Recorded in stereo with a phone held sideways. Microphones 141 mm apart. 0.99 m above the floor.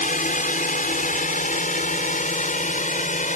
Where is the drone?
70° left (ahead or behind); by 3.4 s 65° left (ahead or behind).